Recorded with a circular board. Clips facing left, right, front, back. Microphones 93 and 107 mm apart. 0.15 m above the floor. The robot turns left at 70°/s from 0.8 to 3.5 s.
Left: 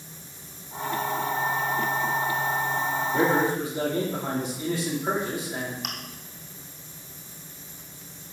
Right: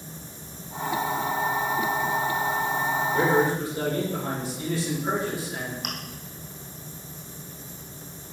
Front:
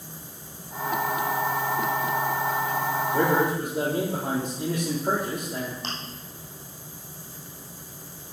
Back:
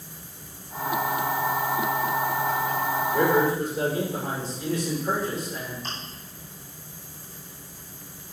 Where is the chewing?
Straight ahead, 2.5 m.